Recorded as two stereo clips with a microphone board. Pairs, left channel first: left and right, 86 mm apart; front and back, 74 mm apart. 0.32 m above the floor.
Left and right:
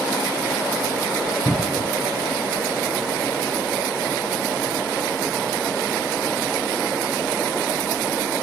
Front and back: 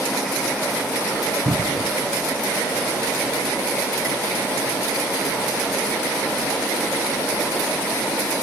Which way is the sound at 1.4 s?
170° left.